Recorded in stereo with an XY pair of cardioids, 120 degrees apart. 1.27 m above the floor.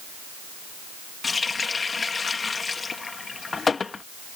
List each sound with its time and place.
1.2 s a running tap: 25° left